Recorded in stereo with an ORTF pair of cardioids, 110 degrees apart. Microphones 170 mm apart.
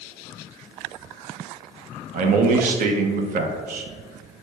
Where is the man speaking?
65° right, 0.7 m.